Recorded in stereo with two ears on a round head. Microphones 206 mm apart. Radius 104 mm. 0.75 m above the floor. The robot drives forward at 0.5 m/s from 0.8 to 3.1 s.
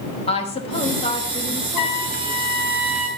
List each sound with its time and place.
0.3 s a woman speaking: 25° left (ahead or behind), 1.0 m; by 2.5 s 15° left (ahead or behind), 1.7 m
1.8 s a trumpet: 70° left (ahead or behind), 1.8 m; by 3.1 s 85° left, 1.7 m